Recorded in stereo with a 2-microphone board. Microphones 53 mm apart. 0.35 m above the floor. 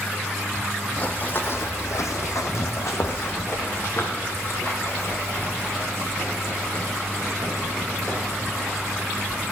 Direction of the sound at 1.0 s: 30° left (ahead or behind).